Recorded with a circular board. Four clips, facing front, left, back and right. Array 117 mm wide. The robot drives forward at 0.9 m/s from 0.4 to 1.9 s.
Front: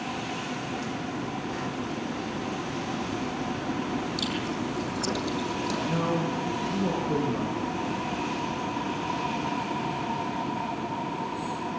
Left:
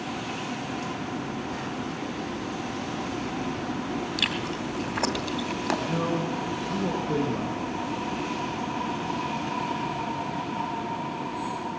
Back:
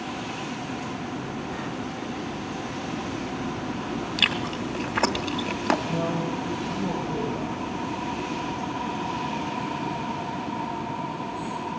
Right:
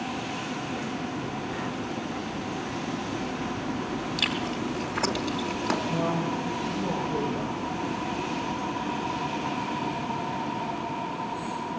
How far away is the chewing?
About 2.5 m.